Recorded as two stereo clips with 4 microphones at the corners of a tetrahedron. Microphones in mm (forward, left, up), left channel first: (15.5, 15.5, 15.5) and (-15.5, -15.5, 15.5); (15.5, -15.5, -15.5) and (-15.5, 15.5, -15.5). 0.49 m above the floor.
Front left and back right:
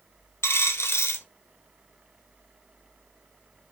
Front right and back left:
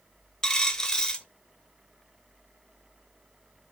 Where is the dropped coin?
30° left, 0.5 m.